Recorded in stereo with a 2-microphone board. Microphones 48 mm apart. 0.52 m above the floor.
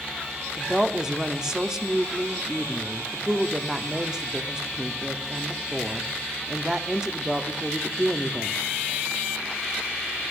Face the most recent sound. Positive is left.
turn(degrees=-15)  # may be behind; listen again after turning